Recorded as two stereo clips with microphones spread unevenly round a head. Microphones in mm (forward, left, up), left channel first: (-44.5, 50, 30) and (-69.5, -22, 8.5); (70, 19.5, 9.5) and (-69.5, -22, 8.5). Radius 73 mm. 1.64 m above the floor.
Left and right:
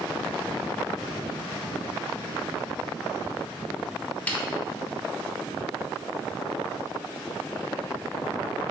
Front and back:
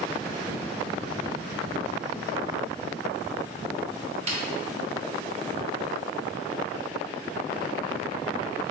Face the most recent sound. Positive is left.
turn(degrees=145)